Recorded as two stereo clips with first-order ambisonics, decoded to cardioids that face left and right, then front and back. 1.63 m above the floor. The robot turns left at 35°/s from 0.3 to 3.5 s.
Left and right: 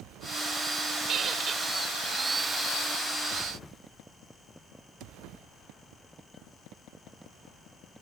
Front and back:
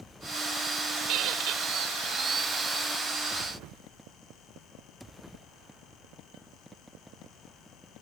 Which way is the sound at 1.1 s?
145° right.